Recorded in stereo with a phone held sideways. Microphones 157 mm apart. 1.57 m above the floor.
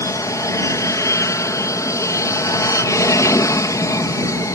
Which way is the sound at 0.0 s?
20° left (ahead or behind).